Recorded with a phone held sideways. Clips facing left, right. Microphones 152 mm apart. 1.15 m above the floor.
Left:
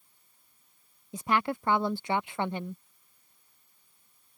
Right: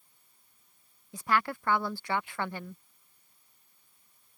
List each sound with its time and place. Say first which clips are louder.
1.1 s a woman speaking: left 2 dB; 20° left (ahead or behind)